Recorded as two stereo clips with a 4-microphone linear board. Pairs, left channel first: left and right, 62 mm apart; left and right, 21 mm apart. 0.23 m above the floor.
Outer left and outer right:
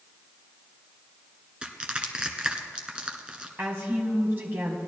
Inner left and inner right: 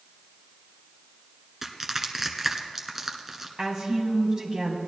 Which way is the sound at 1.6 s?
15° right (ahead or behind).